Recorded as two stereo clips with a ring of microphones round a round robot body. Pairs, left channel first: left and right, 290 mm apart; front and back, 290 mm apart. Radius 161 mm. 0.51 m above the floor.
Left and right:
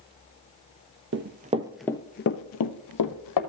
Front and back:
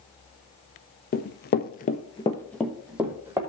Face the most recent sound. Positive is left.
turn(degrees=100)